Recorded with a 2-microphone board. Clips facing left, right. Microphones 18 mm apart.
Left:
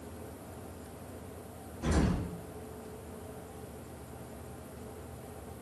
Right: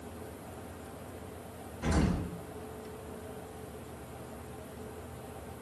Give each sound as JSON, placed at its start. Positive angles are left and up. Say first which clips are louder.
{"t": 1.8, "sound": "an explosion", "louder": "even", "side_deg": -60, "distance_m": 1.5}